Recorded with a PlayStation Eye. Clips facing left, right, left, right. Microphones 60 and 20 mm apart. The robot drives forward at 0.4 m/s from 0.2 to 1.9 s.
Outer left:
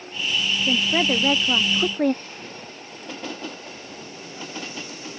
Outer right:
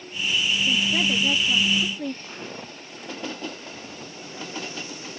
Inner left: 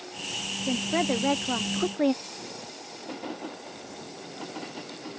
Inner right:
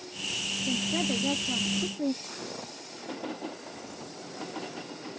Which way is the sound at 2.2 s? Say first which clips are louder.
Outer right 1 dB, inner right 1 dB; 20° right (ahead or behind).